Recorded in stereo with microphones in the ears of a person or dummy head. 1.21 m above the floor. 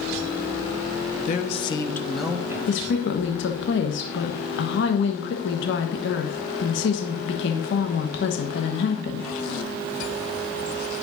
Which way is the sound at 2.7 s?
65° left (ahead or behind).